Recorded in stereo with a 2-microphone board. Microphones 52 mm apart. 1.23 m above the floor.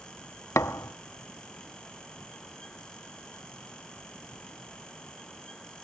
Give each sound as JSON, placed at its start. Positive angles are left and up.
{"t": 0.6, "sound": "a thud", "side_deg": 60, "distance_m": 0.9}